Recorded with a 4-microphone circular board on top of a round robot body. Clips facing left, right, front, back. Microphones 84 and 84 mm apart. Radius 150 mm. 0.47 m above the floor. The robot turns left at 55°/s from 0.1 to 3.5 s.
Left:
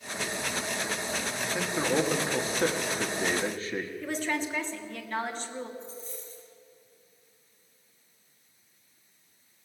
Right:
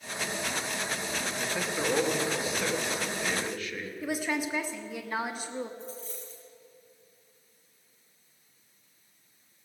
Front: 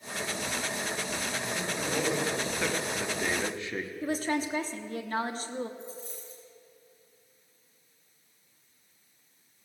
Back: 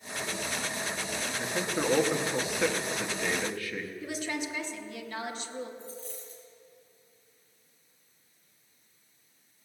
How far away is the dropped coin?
About 3 m.